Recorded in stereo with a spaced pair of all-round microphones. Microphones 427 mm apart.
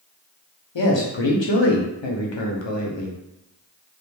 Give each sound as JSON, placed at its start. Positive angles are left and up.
{"t": 0.8, "sound": "a man speaking", "side_deg": 85, "distance_m": 0.7}